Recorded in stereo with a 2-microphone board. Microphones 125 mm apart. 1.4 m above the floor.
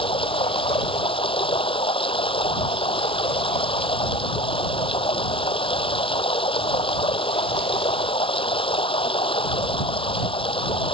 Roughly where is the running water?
Left.